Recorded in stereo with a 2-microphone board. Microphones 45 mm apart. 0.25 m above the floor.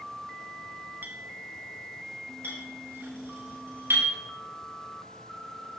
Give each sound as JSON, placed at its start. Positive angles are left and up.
{"t": 1.0, "sound": "a clink", "side_deg": -50, "distance_m": 1.2}
{"t": 2.4, "sound": "a clink", "side_deg": -60, "distance_m": 4.0}